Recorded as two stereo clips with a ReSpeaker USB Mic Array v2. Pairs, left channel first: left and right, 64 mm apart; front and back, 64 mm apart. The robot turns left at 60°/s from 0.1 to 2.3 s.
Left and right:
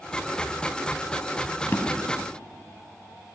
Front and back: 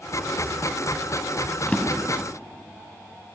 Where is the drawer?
60° left, 1.0 m; by 2.3 s 25° left, 1.0 m.